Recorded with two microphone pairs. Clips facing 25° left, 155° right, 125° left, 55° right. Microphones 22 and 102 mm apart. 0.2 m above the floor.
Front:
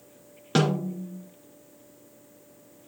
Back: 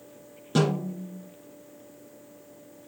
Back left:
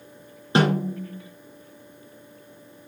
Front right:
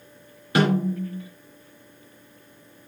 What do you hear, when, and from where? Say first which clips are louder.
0.6 s a snare drum: front 1 dB, even; 65° left, 3.5 m